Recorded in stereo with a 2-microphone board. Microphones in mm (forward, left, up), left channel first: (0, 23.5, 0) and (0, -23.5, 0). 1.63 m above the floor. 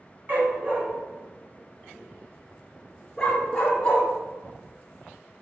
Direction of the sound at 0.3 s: 45° right (ahead or behind).